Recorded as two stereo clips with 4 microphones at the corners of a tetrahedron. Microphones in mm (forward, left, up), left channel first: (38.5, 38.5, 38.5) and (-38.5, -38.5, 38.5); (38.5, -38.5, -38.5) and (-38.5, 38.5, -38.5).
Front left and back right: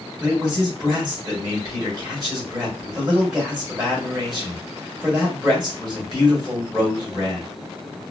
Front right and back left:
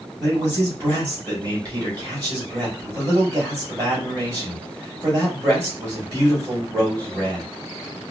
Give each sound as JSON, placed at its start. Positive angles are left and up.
{"t": 0.2, "sound": "a man speaking", "azimuth_deg": -175, "distance_m": 1.4}